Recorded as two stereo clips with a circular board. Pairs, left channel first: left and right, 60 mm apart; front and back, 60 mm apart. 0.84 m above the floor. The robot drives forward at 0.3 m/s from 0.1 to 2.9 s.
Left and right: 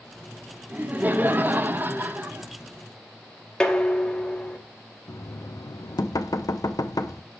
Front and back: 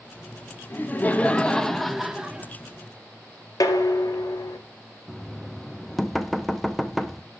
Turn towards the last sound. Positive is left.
turn(degrees=90)